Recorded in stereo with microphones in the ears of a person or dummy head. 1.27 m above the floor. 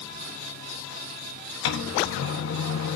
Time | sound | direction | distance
1.6 | a microwave | 80° left | 1.4 m